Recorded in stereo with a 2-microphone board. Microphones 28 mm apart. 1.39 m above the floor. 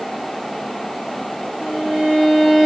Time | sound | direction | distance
1.6 | a violin | centre (ahead or behind) | 0.8 m